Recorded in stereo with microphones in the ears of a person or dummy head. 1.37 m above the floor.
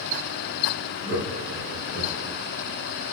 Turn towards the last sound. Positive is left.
turn(degrees=-80)